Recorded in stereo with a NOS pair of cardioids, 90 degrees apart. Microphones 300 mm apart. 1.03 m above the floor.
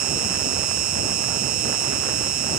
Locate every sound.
0.0 s an insect: 65° right